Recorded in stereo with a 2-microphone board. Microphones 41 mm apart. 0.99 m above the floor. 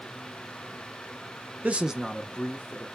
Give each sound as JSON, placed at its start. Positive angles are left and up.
{"t": 1.6, "sound": "a man speaking", "side_deg": -35, "distance_m": 0.6}